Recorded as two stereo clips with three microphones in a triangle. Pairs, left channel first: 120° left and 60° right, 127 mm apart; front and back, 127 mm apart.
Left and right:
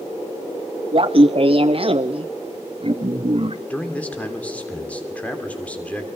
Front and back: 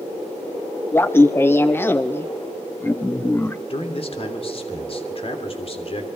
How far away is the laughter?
About 0.7 m.